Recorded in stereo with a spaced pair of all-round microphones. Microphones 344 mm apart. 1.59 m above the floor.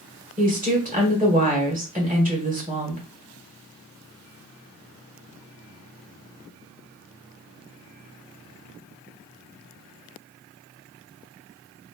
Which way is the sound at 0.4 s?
25° right (ahead or behind).